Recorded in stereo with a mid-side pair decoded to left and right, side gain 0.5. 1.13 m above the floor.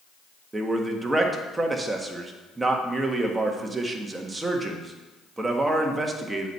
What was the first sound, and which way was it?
A man speaking, 20° right.